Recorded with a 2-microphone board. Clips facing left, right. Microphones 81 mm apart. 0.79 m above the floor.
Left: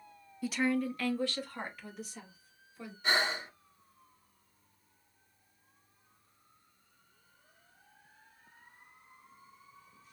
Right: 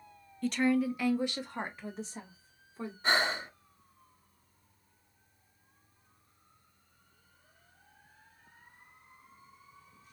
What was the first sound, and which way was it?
A woman speaking, 10° left (ahead or behind).